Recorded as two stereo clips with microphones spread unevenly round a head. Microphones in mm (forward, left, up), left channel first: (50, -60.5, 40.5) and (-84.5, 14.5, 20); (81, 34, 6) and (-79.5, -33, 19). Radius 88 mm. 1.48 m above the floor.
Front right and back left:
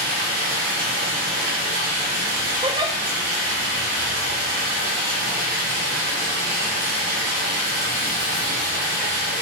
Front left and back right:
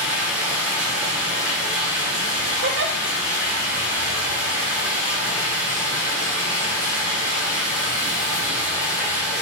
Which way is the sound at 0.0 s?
120° left.